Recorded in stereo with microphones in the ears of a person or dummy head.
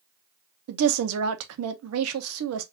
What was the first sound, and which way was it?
A woman speaking, 80° right.